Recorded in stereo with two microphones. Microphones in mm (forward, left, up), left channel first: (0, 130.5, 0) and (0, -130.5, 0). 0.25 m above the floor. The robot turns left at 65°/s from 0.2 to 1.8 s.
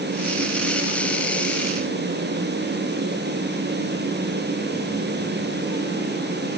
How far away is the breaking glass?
I don't hear breaking glass.